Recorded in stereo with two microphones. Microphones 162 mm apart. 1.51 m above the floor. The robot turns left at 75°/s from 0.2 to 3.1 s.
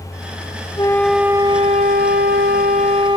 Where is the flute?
25° left; by 3.2 s 150° right.